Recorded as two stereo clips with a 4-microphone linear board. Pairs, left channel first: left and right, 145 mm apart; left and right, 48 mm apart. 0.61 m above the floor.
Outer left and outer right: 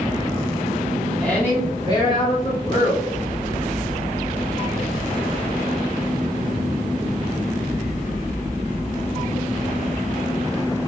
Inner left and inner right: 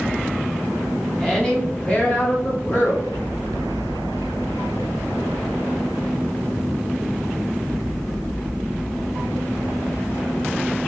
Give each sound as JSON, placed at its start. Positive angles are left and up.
{"t": 1.2, "sound": "a woman speaking", "side_deg": 10, "distance_m": 1.0}